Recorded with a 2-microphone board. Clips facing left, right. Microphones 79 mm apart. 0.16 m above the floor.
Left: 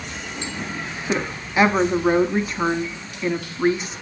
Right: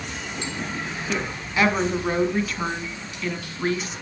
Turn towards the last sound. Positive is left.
turn(degrees=20)  # may be behind; listen again after turning